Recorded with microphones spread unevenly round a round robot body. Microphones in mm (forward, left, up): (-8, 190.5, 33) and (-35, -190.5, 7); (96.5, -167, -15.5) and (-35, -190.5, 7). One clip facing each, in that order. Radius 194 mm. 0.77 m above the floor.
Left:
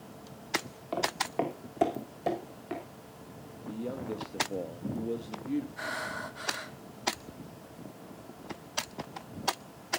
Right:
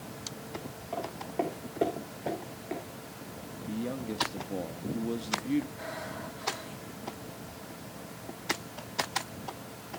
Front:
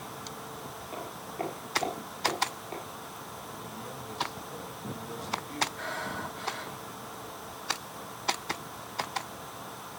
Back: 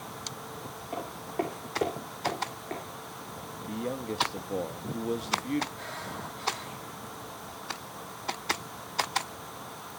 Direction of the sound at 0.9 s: 120° left.